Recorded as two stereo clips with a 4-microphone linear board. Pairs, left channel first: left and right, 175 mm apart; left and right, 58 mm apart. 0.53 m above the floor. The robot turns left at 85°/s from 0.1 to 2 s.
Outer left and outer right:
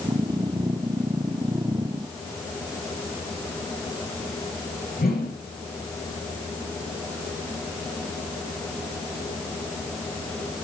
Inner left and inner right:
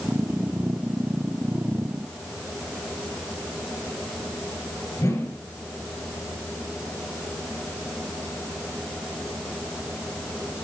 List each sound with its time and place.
5.0 s a whoosh: 60° left (ahead or behind), 3.5 m